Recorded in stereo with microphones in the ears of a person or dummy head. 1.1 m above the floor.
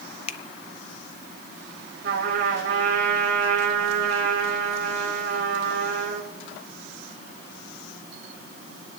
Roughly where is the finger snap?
Left.